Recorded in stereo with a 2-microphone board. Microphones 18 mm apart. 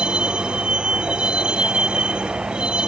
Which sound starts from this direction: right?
A vehicle, at 0.0 s.